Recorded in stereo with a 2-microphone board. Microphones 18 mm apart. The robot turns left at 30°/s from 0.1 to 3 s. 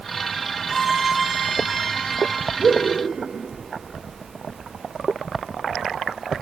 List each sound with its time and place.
0.7 s a violin: 40° left, 2.5 m; by 2.5 s 15° right, 2.5 m
2.6 s laughter: 30° right (ahead or behind), 1.1 m